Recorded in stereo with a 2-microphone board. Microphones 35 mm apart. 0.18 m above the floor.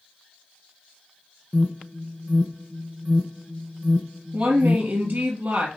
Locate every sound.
1.5 s an alarm: 10° left (ahead or behind), 1.2 m
4.3 s a woman speaking: 65° right (ahead or behind), 3 m